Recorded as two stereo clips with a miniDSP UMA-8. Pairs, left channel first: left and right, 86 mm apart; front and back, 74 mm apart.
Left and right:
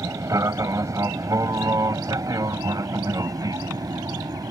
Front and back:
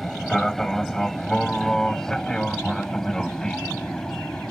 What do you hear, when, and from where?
0.0 s an aircraft: 85° right; by 4.5 s 80° right